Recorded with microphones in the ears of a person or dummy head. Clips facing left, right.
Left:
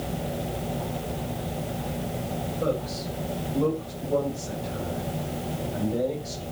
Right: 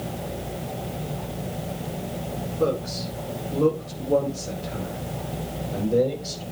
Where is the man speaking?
85° right, 6 m; by 6.4 s 60° right (ahead or behind), 7.5 m.